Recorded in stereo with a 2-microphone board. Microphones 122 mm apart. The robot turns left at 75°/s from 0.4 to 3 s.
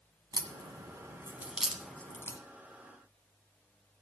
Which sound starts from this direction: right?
A crack, at 0.3 s.